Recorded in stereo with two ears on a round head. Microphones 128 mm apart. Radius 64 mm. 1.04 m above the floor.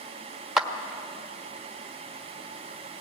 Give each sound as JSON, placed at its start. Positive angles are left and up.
{"t": 0.6, "sound": "a clap", "side_deg": -5, "distance_m": 1.2}